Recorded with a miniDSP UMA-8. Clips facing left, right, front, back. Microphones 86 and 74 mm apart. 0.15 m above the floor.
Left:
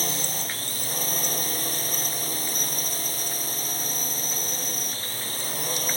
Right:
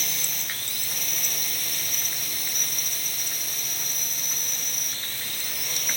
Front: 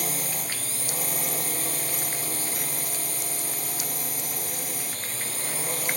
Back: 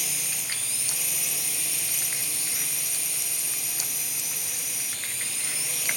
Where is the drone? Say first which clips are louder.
Left 6 dB, front 6 dB; 40° left.